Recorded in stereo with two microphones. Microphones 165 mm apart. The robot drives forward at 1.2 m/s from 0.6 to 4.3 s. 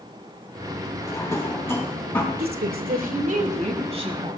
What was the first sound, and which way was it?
A drawer, 20° left (ahead or behind).